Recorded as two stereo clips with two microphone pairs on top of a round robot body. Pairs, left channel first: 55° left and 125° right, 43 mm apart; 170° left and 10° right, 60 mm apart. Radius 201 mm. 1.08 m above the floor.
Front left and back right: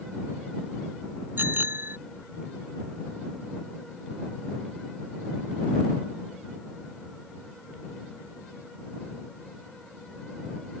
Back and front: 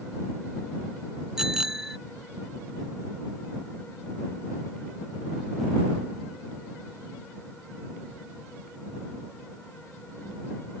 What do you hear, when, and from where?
1.4 s a bicycle bell: 90° right